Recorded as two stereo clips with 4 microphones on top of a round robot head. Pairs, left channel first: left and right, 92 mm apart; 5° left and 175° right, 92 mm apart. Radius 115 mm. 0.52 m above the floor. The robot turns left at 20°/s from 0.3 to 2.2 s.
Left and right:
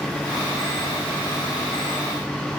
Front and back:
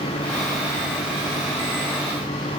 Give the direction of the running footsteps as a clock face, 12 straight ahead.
No running footsteps in this recording.